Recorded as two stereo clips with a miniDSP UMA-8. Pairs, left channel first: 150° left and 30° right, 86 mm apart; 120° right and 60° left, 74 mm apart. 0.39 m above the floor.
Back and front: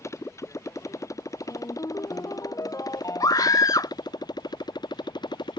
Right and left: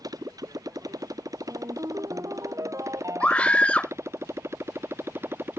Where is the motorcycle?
95° left; by 5.6 s 120° left.